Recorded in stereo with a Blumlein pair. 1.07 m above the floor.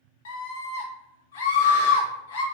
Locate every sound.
0.2 s a scream: 60° left, 0.9 m